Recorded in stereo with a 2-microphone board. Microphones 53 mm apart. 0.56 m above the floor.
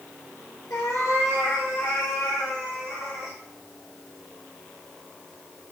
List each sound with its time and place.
0.7 s a cat meowing: 65° left (ahead or behind), 1.3 m; by 3.4 s 80° left, 3.5 m